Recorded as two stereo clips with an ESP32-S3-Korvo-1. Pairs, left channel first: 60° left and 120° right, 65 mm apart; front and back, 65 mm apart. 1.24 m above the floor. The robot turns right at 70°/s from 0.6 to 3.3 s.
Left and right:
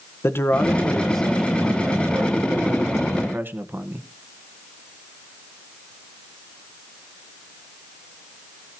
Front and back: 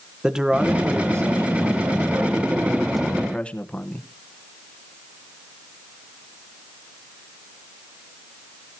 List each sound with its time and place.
0.2 s a man speaking: 100° left, 1.2 m; by 4.0 s 70° right, 1.2 m